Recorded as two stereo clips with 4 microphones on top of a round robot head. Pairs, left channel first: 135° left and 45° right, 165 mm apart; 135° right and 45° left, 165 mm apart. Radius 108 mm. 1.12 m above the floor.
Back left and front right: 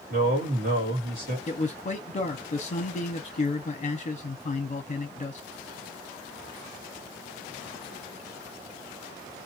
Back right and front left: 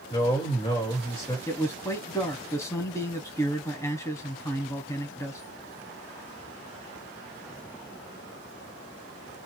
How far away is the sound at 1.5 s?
About 0.7 m.